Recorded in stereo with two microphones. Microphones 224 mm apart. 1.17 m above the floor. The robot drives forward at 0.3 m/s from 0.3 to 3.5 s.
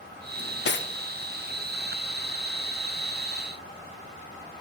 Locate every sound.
0.4 s cutlery clinking: 50° left (ahead or behind), 0.6 m; by 0.9 s 55° left (ahead or behind), 0.5 m